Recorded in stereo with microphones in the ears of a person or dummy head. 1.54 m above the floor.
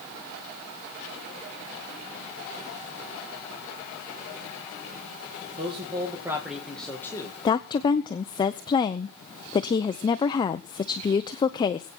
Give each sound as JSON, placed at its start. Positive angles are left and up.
{"t": 5.6, "sound": "a man speaking", "side_deg": -35, "distance_m": 1.9}
{"t": 7.5, "sound": "a woman speaking", "side_deg": 25, "distance_m": 0.7}